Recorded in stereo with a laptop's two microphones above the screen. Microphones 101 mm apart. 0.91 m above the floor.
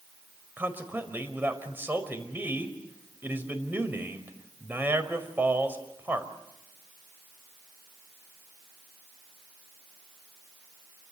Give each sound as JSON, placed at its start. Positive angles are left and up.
{"t": 0.6, "sound": "a man speaking", "side_deg": -20, "distance_m": 5.0}